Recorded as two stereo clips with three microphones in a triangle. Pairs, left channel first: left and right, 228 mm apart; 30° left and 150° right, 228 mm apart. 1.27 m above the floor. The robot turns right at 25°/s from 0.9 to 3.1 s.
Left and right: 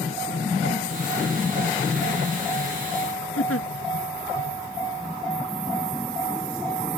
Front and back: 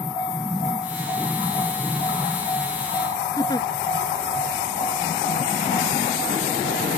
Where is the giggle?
105° left.